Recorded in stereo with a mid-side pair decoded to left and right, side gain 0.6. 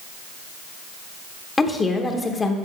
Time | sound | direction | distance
1.6 | a woman speaking | 20° left | 1.1 m